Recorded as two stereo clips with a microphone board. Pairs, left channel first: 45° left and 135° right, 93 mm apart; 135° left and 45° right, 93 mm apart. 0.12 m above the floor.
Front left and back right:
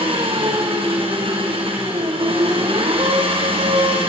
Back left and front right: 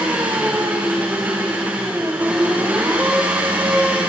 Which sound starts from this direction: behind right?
An engine running, at 0.0 s.